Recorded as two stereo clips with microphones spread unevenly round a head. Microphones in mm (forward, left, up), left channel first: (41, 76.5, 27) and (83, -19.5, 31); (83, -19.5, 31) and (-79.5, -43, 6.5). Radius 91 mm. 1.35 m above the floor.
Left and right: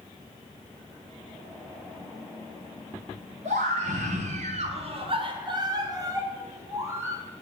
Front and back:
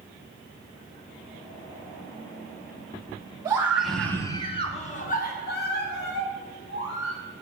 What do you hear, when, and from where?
3.5 s a scream: 100° right, 1.9 m; by 7.2 s straight ahead, 4.5 m